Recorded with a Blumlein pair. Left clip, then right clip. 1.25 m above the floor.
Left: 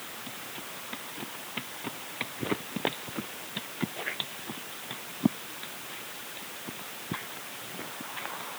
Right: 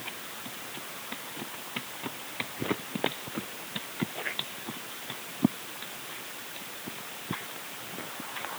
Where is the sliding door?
I don't hear a sliding door.